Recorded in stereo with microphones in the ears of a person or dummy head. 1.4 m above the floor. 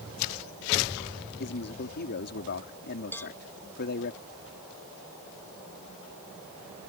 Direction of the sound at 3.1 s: 10° left (ahead or behind).